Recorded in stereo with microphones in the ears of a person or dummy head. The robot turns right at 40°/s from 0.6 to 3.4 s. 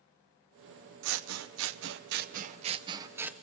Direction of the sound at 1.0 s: 105° right.